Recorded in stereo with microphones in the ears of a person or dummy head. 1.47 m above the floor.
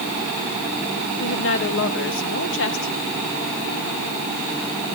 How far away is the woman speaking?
About 2.5 m.